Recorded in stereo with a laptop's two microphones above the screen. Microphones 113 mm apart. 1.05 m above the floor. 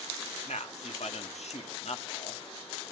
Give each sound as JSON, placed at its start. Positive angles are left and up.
{"t": 0.5, "sound": "a man speaking", "side_deg": 75, "distance_m": 1.7}